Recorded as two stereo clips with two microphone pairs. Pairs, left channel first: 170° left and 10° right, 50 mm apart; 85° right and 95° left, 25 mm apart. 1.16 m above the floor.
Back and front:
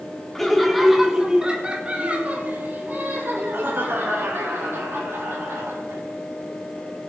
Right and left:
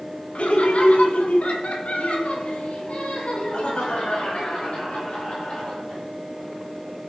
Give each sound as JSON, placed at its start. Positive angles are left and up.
{"t": 0.3, "sound": "laughter", "azimuth_deg": -110, "distance_m": 2.5}